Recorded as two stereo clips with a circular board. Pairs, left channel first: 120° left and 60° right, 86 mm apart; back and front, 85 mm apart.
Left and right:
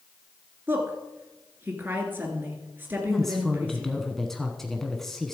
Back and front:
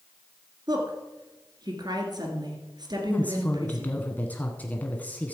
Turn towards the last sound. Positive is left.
turn(degrees=-165)